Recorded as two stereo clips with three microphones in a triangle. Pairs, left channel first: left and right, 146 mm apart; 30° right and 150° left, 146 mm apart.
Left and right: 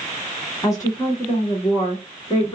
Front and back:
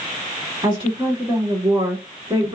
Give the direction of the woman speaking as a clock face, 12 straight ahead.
7 o'clock.